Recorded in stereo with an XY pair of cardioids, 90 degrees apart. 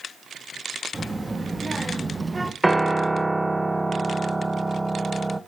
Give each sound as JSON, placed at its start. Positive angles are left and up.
{"t": 0.9, "sound": "a child speaking", "azimuth_deg": -20, "distance_m": 1.9}
{"t": 2.6, "sound": "a piano", "azimuth_deg": -10, "distance_m": 1.0}